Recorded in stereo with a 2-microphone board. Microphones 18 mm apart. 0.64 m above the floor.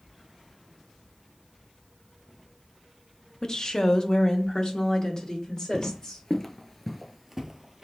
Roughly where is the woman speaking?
Left.